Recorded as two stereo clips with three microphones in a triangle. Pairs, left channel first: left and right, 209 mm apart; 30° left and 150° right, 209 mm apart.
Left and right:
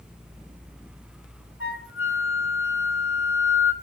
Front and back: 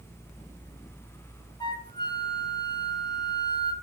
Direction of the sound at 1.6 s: 95° left.